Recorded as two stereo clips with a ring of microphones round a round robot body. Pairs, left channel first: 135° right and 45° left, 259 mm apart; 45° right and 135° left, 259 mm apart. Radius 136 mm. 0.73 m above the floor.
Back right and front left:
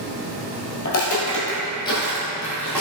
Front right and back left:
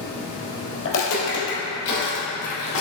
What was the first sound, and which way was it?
Footsteps, 85° right.